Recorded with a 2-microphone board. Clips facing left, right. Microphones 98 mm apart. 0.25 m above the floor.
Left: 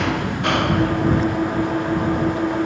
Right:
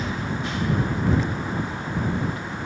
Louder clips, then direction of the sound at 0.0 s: Left 7 dB; 70° left (ahead or behind).